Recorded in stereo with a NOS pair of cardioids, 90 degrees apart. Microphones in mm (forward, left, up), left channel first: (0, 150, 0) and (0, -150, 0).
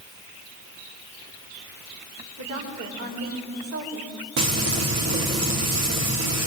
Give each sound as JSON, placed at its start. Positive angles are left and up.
{"t": 2.4, "sound": "a woman speaking", "azimuth_deg": -65, "distance_m": 7.0}
{"t": 4.4, "sound": "frying", "azimuth_deg": -60, "distance_m": 4.0}